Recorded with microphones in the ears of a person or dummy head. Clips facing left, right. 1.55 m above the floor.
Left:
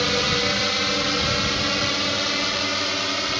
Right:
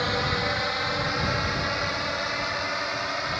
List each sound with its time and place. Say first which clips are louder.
0.0 s a drone: left 4 dB; 45° left (ahead or behind)